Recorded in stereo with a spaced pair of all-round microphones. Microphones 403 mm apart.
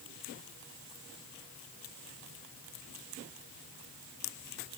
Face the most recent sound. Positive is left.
No sound to turn to.